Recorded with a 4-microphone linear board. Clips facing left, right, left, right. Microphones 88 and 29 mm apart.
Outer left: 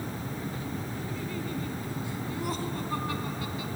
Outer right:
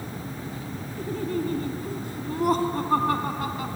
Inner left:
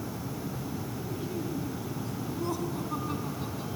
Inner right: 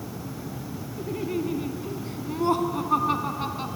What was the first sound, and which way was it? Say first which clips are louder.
Laughter: outer right 7 dB, inner right 10 dB; 50° right (ahead or behind).